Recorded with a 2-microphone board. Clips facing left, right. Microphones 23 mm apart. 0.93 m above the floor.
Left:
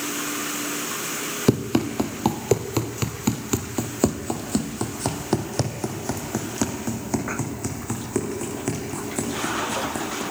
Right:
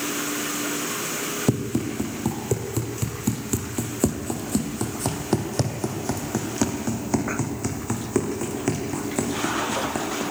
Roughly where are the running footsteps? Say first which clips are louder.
Left 5 dB; left.